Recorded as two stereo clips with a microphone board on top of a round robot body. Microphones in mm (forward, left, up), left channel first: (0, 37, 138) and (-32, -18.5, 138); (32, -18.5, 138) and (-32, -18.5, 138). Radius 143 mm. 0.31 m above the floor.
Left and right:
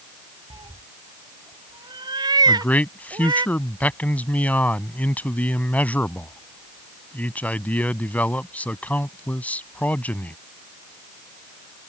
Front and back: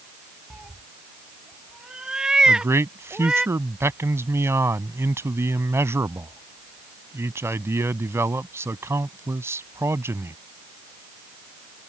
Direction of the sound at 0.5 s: 100° right.